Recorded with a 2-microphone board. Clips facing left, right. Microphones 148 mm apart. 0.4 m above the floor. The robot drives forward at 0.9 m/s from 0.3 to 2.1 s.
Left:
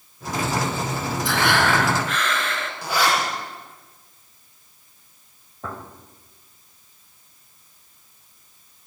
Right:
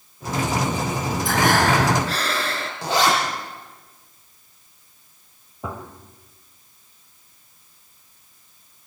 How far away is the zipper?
About 9.5 m.